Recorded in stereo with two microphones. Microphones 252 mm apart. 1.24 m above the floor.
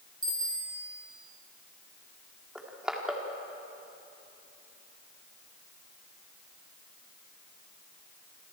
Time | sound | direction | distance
0.2 | a bicycle bell | 15° right (ahead or behind) | 4 m
2.5 | crushing | 5° right (ahead or behind) | 2.5 m